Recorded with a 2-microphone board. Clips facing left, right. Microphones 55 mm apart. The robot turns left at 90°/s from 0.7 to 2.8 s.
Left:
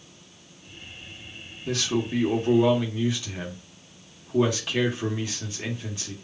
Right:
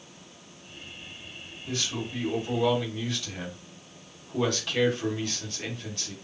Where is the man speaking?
115° left, 1.4 m; by 6.2 s 10° left, 1.4 m.